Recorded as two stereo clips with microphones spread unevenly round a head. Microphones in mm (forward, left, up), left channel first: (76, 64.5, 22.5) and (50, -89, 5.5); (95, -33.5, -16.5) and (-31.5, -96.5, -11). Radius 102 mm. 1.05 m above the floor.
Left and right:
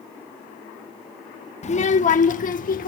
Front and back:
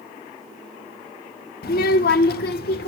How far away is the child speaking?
About 1.1 m.